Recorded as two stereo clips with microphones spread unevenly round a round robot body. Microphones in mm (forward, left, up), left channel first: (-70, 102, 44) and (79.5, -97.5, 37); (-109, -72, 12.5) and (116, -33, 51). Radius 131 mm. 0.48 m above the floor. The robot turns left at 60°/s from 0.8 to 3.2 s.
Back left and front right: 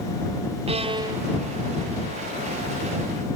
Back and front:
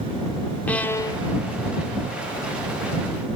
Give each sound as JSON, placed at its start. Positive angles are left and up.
{"t": 0.7, "sound": "a violin", "azimuth_deg": -100}